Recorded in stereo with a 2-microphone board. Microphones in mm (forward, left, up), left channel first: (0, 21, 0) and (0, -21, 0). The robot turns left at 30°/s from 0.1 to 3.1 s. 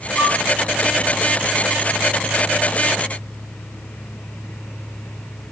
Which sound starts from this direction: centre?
A flute, at 0.2 s.